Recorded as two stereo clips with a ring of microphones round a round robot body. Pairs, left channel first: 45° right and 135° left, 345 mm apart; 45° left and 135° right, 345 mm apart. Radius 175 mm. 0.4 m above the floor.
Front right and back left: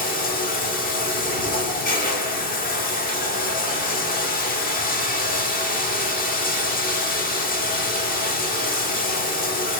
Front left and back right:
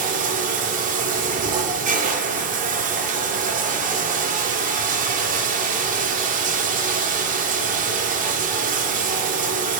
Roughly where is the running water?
Right.